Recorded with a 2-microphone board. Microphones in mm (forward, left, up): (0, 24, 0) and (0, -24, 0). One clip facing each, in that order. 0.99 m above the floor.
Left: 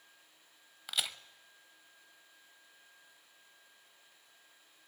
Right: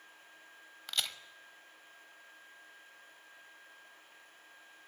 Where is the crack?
5° left (ahead or behind), 0.8 m.